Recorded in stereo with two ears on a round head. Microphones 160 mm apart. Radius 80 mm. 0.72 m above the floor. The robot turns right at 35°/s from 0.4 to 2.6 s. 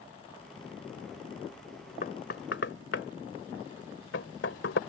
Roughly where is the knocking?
Left.